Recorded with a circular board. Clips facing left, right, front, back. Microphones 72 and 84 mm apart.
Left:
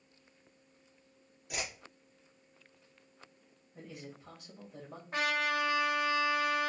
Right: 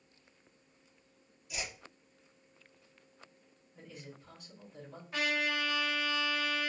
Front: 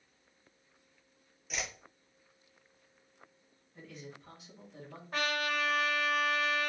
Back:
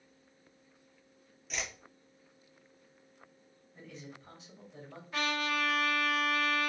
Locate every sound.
1.5 s a whoosh: 85° left, 0.7 m
3.8 s a man speaking: 85° left, 1.6 m
5.1 s a trumpet: 45° left, 1.6 m